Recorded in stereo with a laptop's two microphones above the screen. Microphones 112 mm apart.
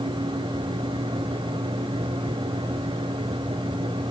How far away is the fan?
About 1.5 m.